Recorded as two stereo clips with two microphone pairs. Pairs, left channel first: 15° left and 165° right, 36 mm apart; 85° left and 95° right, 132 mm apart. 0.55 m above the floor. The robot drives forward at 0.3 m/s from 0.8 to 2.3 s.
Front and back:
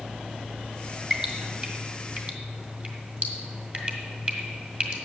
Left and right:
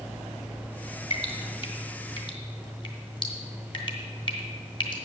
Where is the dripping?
130° left, 1.4 m; by 5.0 s 140° left, 1.7 m.